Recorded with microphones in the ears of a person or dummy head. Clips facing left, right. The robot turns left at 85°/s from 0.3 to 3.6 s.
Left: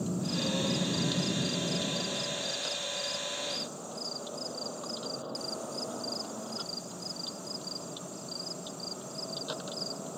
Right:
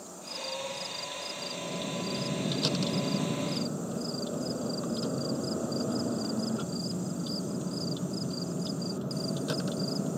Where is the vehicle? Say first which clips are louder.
Left 10 dB; 130° left; by 10.2 s 150° right.